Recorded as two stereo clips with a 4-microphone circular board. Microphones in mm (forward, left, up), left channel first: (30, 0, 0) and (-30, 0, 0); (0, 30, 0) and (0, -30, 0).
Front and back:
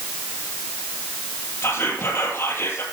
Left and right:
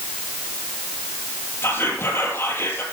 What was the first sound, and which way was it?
Whispering, 45° left.